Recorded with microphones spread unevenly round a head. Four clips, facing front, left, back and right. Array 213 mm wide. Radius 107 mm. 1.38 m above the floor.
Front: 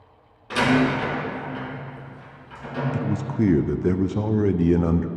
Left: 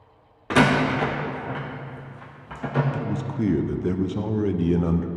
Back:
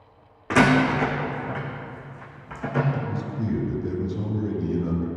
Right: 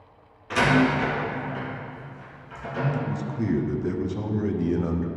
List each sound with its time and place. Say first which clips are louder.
0.5 s a door slam: left 1 dB, back 1 dB; 130° left, 1.0 m
2.9 s a man speaking: left 1 dB, front 4 dB; 20° left, 0.5 m